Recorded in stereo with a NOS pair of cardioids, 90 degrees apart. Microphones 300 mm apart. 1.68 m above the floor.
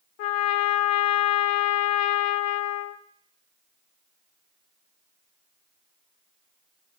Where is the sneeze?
I don't hear a sneeze.